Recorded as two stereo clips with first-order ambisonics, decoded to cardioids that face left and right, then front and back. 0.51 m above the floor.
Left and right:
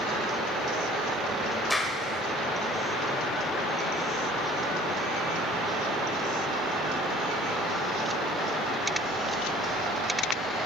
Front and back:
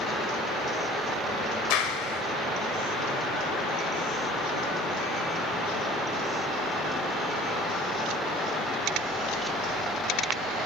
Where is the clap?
5° left, 1.6 m.